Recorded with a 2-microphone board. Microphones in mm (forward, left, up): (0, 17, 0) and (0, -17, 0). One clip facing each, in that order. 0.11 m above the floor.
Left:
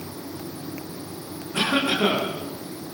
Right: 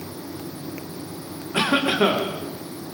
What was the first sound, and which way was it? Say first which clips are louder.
A cough: right 2 dB; 25° right (ahead or behind).